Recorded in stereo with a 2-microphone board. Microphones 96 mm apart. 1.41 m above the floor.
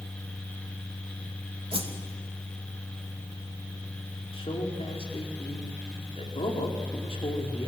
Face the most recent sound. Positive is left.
turn(degrees=85)